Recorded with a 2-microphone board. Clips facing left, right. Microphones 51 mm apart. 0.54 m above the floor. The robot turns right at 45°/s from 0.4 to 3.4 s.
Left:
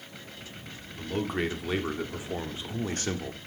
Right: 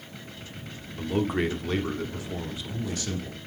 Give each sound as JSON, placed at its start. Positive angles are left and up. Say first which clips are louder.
{"t": 1.0, "sound": "a man speaking", "louder": "right 4 dB", "azimuth_deg": -20, "distance_m": 1.0}